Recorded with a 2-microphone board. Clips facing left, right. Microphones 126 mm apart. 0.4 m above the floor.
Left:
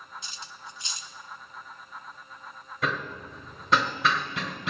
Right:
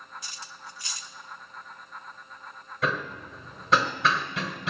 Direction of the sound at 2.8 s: Centre (ahead or behind).